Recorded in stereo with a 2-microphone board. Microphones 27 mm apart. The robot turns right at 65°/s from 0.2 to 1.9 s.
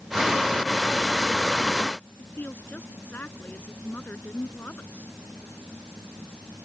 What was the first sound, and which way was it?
A woman speaking, 90° left.